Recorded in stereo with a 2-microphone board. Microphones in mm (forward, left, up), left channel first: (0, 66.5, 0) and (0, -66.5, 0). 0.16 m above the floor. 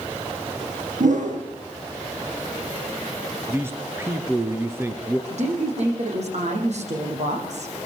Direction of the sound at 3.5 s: 20° right (ahead or behind).